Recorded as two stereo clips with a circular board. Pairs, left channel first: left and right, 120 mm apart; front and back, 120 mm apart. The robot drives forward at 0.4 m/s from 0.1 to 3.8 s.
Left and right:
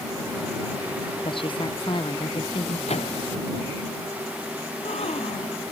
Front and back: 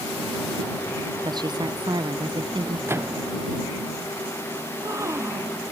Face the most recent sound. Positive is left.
turn(degrees=115)